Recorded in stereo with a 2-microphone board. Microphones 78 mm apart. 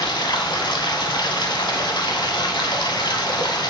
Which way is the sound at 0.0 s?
75° left (ahead or behind).